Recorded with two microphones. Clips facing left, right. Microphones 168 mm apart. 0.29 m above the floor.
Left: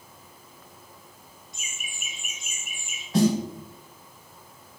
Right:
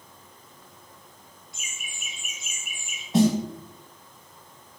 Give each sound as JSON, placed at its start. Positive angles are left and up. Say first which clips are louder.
{"t": 1.5, "sound": "laughter", "louder": "left 1 dB", "side_deg": 20, "distance_m": 1.8}
{"t": 3.1, "sound": "a snare drum", "louder": "right 1 dB", "side_deg": -20, "distance_m": 0.7}